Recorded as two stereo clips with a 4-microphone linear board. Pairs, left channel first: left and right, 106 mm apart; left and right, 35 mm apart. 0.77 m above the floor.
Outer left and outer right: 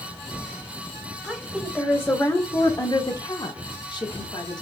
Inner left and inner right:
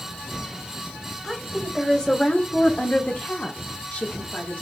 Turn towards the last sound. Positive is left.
turn(degrees=45)  # may be behind; listen again after turning